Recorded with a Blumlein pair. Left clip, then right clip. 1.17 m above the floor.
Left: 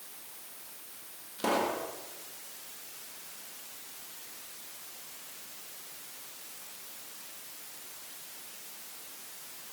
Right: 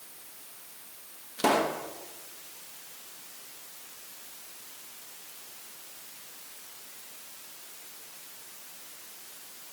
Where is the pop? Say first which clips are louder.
Right 4 dB; 65° right, 1.3 m.